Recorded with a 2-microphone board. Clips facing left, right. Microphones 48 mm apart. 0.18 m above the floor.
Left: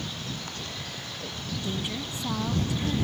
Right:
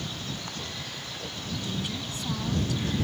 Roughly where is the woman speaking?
Left.